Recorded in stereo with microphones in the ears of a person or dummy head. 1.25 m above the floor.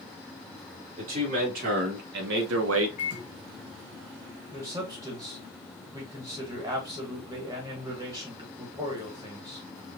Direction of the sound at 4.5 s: 15° right (ahead or behind).